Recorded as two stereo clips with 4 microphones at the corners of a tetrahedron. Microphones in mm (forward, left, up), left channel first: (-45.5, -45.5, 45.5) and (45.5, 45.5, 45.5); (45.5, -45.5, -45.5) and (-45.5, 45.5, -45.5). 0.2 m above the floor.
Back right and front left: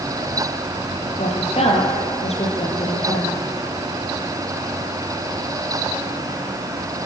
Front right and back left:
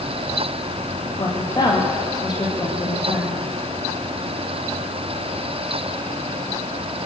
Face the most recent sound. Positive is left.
turn(degrees=-100)